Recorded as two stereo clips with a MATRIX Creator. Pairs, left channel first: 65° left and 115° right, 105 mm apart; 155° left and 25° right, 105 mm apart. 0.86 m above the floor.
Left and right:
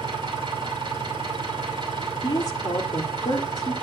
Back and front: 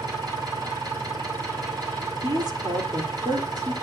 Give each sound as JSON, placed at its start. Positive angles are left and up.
{"t": 0.0, "sound": "an engine running", "azimuth_deg": -70, "distance_m": 6.5}
{"t": 2.2, "sound": "a woman speaking", "azimuth_deg": 20, "distance_m": 3.0}